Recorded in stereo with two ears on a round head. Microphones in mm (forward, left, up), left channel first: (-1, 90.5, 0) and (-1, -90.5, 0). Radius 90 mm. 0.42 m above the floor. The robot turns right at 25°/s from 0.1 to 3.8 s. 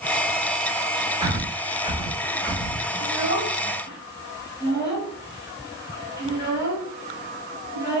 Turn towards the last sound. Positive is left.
turn(degrees=55)  # may be behind; listen again after turning